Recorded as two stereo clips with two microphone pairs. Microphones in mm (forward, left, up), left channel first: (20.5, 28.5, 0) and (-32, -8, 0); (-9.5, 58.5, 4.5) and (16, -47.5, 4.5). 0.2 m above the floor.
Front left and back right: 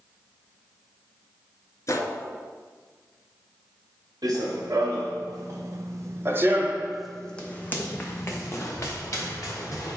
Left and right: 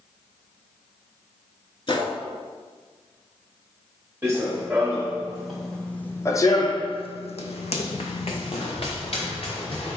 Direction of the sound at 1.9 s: 65° left.